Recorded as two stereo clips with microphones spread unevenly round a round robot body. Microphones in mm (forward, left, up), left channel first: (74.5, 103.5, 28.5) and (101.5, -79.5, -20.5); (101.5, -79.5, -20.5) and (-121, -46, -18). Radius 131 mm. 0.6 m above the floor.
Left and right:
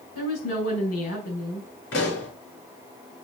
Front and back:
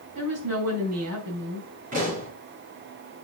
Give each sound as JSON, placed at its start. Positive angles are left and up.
{"t": 0.1, "sound": "a woman speaking", "azimuth_deg": 135, "distance_m": 4.5}
{"t": 1.9, "sound": "a pop", "azimuth_deg": 110, "distance_m": 6.0}